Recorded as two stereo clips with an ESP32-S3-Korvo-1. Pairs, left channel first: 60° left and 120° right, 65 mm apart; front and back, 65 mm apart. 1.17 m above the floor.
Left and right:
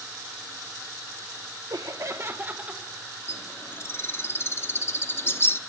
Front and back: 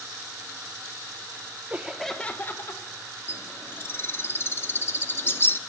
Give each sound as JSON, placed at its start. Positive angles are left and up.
{"t": 1.7, "sound": "laughter", "azimuth_deg": -120, "distance_m": 0.9}
{"t": 3.3, "sound": "a bird", "azimuth_deg": 30, "distance_m": 0.8}